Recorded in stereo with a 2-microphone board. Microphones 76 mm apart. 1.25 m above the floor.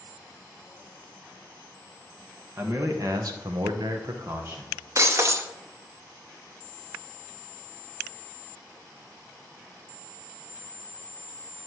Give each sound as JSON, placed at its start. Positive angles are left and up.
{"t": 2.6, "sound": "a man speaking", "side_deg": -40, "distance_m": 1.5}
{"t": 5.0, "sound": "breaking glass", "side_deg": -40, "distance_m": 0.6}